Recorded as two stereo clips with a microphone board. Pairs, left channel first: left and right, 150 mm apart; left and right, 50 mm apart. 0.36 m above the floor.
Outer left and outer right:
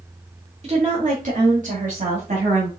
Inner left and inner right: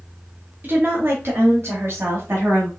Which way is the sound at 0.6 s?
40° right (ahead or behind).